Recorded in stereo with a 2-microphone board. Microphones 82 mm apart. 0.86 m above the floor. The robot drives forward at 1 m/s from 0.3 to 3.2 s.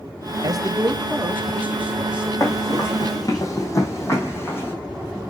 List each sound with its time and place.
0.4 s a man speaking: 55° right (ahead or behind), 0.6 m; by 3.4 s 10° right (ahead or behind), 3 m
2.4 s running footsteps: 45° left (ahead or behind), 3 m; by 4.7 s 30° left (ahead or behind), 3 m